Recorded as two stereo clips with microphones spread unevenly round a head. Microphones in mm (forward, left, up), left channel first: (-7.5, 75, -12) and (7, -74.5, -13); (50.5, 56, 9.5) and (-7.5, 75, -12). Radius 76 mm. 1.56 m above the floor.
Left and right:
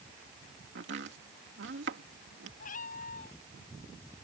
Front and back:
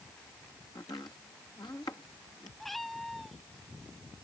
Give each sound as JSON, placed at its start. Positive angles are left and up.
{"t": 0.8, "sound": "chopping", "azimuth_deg": -75}
{"t": 2.6, "sound": "a cat meowing", "azimuth_deg": 60}